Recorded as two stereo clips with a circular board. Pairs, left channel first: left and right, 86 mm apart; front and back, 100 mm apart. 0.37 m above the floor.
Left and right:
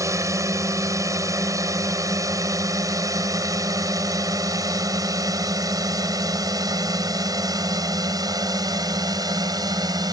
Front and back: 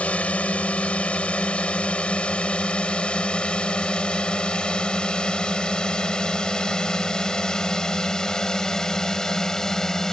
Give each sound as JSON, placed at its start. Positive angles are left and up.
{"t": 0.0, "sound": "a drone", "azimuth_deg": -70}